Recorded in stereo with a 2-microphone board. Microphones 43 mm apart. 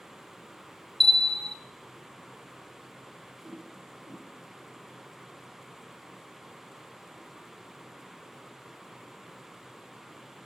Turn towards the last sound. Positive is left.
turn(degrees=-35)  # may be behind; listen again after turning